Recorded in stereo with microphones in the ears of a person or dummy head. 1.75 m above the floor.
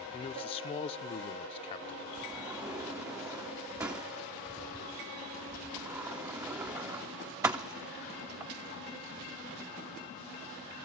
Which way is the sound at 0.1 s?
25° left (ahead or behind).